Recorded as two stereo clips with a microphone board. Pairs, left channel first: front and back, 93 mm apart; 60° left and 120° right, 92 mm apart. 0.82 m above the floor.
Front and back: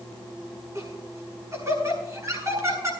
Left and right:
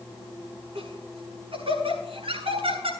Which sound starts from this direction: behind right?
Laughter, at 0.8 s.